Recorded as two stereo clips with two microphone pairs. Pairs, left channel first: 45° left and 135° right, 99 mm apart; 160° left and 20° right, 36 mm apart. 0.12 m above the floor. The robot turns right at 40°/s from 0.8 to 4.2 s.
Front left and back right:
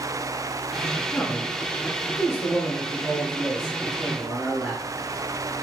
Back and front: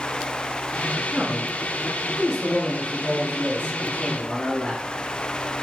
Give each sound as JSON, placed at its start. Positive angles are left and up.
{"t": 1.1, "sound": "a man speaking", "azimuth_deg": 20, "distance_m": 1.3}